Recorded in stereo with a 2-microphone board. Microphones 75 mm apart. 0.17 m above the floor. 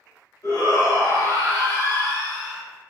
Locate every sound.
0.4 s a shout: 55° left (ahead or behind), 1.9 m; by 2.6 s 20° left (ahead or behind), 1.1 m